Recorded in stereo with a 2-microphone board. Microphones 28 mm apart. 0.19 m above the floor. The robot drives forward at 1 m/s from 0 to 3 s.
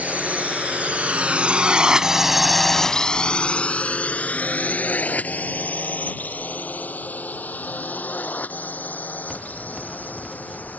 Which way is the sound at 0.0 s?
65° right (ahead or behind).